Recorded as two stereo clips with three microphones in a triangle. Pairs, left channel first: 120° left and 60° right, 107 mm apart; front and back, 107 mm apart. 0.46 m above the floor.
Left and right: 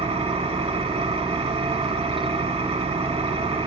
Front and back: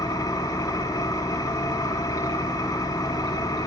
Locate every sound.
0.0 s an engine running: 50° right, 0.9 m